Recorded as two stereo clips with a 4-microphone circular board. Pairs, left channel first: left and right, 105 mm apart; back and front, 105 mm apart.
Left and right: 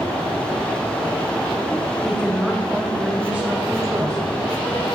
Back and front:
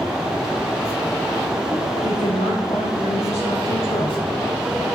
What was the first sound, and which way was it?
A woman speaking, 175° left.